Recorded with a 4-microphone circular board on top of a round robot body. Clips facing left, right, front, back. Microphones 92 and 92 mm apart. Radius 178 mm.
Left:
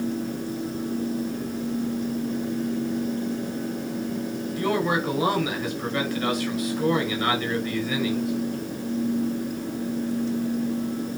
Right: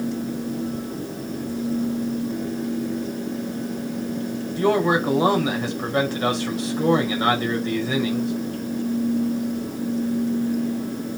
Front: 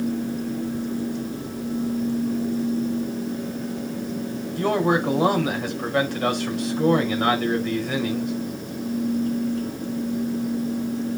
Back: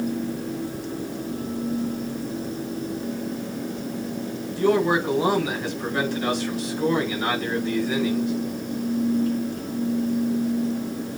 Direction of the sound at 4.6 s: 30° right.